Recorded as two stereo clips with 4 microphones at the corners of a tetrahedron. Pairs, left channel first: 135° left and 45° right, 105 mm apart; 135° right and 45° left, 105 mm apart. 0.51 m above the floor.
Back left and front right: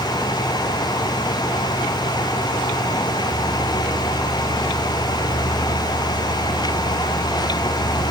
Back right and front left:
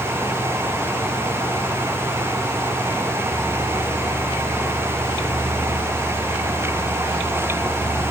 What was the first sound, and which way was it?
Only background noise.